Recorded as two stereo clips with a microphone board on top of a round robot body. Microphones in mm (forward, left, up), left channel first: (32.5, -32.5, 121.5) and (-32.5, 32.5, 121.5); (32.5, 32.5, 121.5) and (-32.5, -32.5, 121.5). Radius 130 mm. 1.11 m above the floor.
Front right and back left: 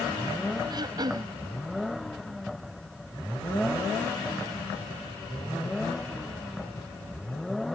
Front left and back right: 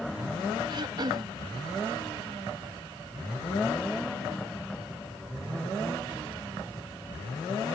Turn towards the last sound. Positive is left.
turn(degrees=180)